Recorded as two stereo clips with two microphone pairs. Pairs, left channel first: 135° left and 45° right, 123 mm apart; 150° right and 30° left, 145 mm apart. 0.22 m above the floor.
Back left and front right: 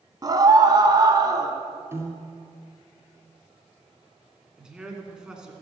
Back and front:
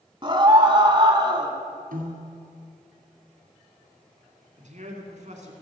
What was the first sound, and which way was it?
A scream, 10° right.